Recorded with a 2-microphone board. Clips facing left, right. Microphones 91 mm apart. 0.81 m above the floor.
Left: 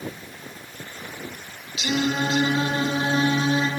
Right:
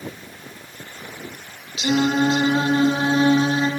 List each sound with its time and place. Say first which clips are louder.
1.8 s singing: right 5 dB; 35° right (ahead or behind), 1.2 m